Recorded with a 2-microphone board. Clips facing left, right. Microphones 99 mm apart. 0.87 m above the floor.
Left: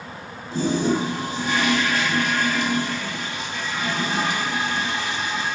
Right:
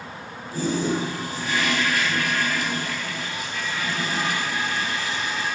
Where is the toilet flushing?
25° left (ahead or behind), 3.5 m.